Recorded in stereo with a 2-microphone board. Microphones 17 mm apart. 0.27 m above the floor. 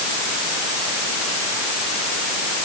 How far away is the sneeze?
No sneeze in this recording.